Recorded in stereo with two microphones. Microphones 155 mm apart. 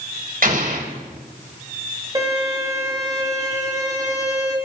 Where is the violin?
25° right (ahead or behind), 4 m.